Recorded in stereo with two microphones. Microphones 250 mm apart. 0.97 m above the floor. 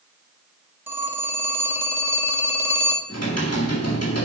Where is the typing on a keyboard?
75° left (ahead or behind), 1.7 m.